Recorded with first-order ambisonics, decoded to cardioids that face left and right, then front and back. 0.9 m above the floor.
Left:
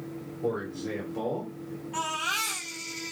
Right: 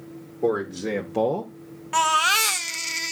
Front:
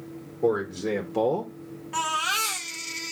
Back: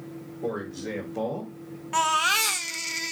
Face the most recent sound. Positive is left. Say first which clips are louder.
# right 10 dB, back 3 dB
turn(degrees=-110)